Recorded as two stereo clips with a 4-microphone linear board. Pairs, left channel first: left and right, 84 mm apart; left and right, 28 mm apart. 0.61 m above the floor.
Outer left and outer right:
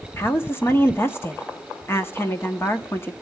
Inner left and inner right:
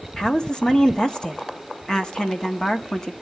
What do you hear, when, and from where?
0.2 s a woman speaking: 30° left (ahead or behind), 1.1 m